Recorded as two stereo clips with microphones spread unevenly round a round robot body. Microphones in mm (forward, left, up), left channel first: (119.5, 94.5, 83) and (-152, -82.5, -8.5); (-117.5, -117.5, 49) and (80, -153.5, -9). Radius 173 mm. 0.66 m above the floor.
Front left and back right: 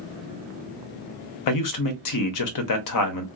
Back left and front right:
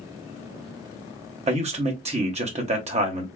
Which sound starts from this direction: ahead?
A man speaking, at 1.5 s.